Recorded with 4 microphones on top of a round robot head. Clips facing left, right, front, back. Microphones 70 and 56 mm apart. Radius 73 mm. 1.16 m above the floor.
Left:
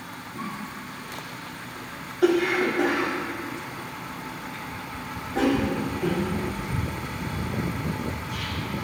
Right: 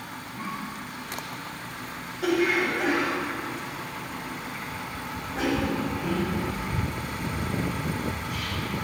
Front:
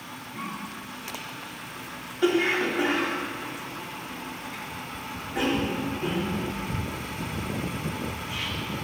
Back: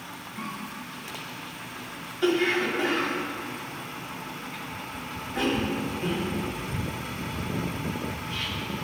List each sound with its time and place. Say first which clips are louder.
0.3 s a cough: even, front 1 dB; 80° left, 4 m